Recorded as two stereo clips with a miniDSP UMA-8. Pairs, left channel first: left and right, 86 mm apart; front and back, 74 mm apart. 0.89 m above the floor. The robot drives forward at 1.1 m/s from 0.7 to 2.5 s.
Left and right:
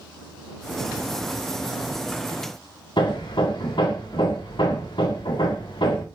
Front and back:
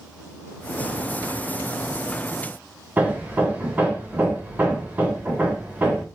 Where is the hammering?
115° left, 1.8 m.